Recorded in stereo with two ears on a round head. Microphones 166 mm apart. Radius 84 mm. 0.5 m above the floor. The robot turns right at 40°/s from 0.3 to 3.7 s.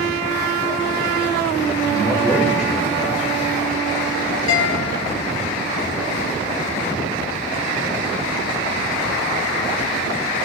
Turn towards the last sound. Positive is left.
turn(degrees=80)